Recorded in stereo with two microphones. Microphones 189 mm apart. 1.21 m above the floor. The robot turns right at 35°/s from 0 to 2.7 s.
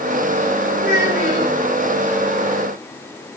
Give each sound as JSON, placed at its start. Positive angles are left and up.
{"t": 0.8, "sound": "a child speaking", "side_deg": -30, "distance_m": 3.5}